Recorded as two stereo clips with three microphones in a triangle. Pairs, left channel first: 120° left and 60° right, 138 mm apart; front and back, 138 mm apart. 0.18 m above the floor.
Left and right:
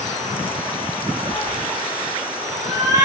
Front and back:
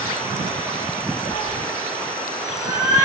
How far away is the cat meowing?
About 1.3 m.